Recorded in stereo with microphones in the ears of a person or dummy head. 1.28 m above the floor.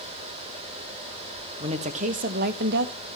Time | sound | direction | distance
1.6 | a woman speaking | 35° right (ahead or behind) | 1.4 m